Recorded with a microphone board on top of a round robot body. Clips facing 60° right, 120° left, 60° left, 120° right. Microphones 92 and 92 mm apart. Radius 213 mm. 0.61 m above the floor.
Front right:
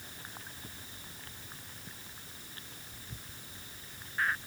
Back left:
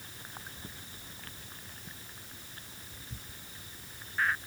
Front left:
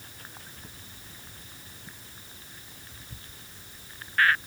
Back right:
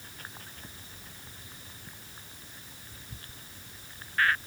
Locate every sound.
Only background noise.